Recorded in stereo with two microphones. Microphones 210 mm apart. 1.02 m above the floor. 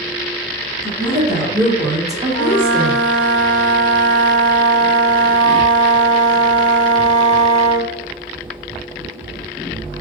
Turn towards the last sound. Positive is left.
turn(degrees=20)  # may be behind; listen again after turning